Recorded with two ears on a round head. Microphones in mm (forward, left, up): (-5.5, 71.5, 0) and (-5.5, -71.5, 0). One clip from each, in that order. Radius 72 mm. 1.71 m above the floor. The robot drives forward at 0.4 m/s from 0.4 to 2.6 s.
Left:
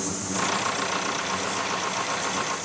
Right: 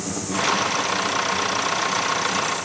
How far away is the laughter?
No laughter in this recording.